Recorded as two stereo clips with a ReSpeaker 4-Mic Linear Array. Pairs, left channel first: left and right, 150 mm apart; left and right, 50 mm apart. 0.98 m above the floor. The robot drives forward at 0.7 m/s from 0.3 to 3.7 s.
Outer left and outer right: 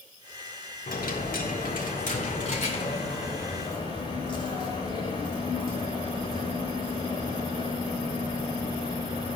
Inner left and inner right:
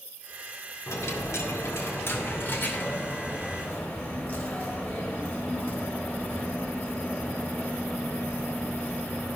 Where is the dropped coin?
75° left (ahead or behind), 1.2 m; by 9.4 s 35° left (ahead or behind), 2 m.